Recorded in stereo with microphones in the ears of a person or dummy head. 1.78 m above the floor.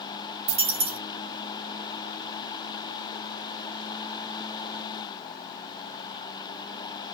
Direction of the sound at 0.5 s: 40° right (ahead or behind).